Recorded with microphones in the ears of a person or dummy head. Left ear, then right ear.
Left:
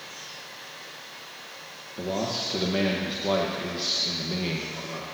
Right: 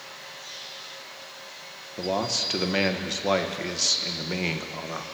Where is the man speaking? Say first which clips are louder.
Right 3 dB; 55° right (ahead or behind), 1.0 m.